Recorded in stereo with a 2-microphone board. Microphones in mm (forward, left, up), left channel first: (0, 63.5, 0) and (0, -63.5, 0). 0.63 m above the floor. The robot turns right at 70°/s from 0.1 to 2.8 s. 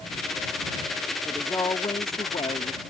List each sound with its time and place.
1.2 s a woman speaking: 15° left; by 2.8 s 120° left